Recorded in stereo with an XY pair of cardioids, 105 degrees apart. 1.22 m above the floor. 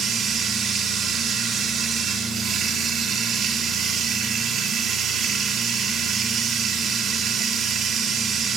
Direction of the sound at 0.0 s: 65° right.